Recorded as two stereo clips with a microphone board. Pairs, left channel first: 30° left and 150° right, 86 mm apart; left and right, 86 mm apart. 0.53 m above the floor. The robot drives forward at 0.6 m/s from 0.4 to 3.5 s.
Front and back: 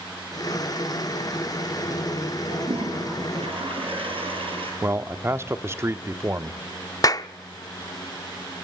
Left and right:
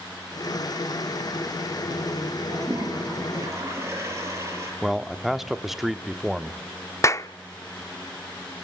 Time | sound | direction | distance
2.5 | a toilet flushing | 145° right | 8 m
4.8 | a man speaking | 175° right | 0.8 m
7.0 | a clap | 50° left | 0.6 m